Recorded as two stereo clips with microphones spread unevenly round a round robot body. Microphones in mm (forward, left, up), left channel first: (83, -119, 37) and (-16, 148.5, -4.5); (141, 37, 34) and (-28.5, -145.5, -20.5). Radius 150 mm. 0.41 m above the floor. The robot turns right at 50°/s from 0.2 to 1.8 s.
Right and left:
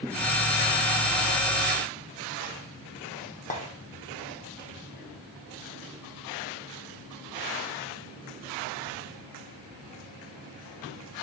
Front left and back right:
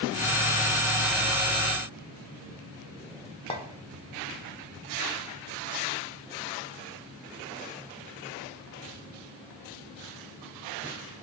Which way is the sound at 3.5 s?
20° right.